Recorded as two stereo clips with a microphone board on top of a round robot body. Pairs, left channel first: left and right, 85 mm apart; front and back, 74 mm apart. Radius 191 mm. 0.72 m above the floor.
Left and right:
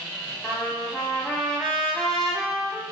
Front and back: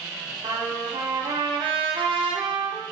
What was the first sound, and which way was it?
A trumpet, straight behind.